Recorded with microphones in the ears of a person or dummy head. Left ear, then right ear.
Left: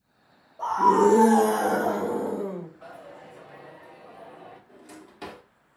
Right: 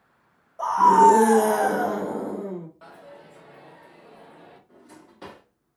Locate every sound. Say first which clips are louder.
0.6 s a scream: right 5 dB; 65° right (ahead or behind), 0.9 m; by 2.7 s 25° left (ahead or behind), 1.0 m
2.8 s a dropped coin: left 2 dB; 30° right (ahead or behind), 1.1 m
4.7 s a drawer: left 3 dB; 15° left (ahead or behind), 0.8 m